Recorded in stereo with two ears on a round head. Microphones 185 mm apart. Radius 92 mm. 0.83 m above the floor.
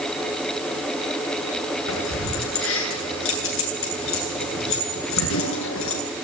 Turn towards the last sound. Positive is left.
turn(degrees=70)  # may be behind; listen again after turning